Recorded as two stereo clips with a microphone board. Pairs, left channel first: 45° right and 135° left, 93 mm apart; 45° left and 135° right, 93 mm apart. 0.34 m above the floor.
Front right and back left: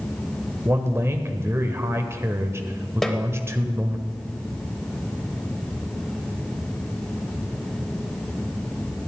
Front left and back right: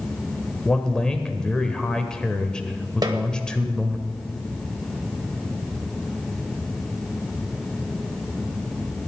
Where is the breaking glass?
I don't hear breaking glass.